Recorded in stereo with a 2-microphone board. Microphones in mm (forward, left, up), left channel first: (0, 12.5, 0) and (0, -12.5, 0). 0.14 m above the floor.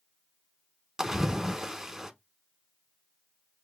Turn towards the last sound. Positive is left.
turn(degrees=-20)  # may be behind; listen again after turning